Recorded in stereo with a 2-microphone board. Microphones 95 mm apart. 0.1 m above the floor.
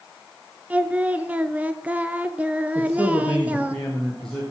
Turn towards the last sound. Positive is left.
turn(degrees=5)  # may be behind; listen again after turning